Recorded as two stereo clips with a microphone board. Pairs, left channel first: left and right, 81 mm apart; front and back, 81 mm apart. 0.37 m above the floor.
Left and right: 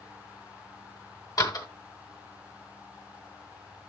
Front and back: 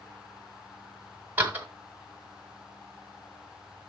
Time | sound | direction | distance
1.4 | a door slam | 115° left | 1.8 m